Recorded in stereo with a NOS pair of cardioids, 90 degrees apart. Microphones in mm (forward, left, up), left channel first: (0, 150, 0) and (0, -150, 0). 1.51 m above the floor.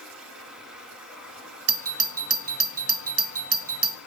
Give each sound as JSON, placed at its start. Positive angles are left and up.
{"t": 0.0, "sound": "running water", "azimuth_deg": -5, "distance_m": 7.5}
{"t": 1.7, "sound": "a doorbell", "azimuth_deg": -50, "distance_m": 0.9}